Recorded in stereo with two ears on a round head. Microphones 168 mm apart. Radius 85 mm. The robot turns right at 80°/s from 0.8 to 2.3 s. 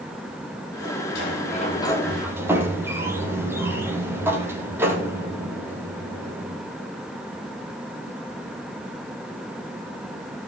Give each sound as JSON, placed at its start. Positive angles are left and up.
{"t": 1.1, "sound": "a sliding door", "azimuth_deg": 100, "distance_m": 4.0}